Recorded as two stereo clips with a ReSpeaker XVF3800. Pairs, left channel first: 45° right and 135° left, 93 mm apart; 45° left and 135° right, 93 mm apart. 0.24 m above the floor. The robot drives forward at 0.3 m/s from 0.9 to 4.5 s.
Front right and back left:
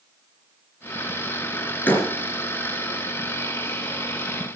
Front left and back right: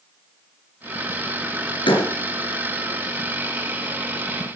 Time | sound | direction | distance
1.9 | a door slam | 25° left | 3.5 m